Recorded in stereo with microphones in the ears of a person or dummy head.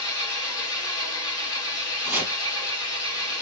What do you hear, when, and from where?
0.0 s an engine running: 25° left (ahead or behind), 2 m
2.0 s chopping: 5° right (ahead or behind), 1.5 m